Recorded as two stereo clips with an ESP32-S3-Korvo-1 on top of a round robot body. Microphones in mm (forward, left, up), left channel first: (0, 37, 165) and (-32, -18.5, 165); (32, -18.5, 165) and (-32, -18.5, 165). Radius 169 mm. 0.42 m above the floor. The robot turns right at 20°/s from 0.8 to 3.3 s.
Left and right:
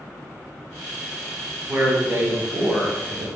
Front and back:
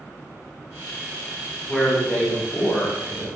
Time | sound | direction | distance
1.7 | a man speaking | 70° right | 1.7 m